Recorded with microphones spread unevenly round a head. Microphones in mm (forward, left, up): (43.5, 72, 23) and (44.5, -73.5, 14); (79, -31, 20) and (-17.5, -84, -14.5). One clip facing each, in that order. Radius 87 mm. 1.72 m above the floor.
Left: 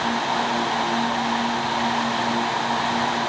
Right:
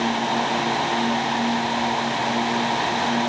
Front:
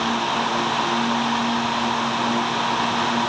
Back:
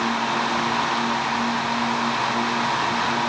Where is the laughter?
No laughter in this recording.